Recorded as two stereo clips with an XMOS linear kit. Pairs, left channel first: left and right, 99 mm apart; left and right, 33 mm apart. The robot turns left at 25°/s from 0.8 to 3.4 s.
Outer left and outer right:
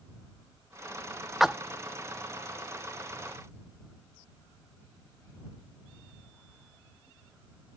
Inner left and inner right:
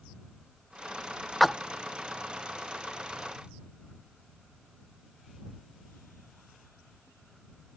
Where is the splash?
Centre (ahead or behind); by 1.6 s 5° right (ahead or behind).